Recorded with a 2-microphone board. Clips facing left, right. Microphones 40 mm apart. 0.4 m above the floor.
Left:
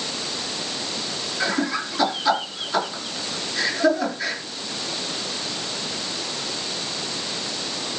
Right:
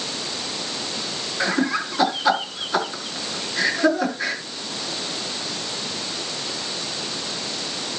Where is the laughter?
15° right (ahead or behind), 5 m.